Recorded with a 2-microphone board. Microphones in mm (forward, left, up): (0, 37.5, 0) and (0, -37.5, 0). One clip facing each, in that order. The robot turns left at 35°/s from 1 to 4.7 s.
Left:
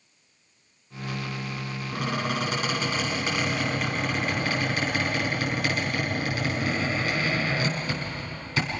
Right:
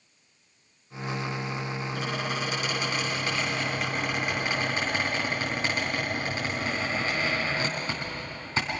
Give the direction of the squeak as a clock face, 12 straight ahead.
10 o'clock.